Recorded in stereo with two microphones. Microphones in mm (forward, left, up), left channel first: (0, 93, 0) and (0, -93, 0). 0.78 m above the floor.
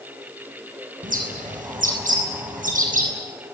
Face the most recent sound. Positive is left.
turn(degrees=-45)  # may be behind; listen again after turning